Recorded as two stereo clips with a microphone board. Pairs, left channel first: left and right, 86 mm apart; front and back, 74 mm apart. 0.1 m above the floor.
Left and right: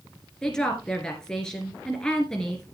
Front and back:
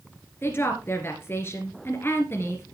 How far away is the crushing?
No crushing in this recording.